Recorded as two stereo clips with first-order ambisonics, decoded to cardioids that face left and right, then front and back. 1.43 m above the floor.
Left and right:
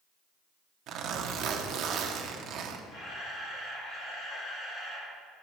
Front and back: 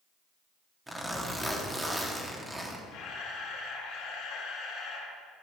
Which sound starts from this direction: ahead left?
A camera shutter, at 2.9 s.